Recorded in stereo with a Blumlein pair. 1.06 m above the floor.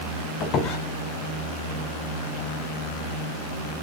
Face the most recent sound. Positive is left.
turn(degrees=35)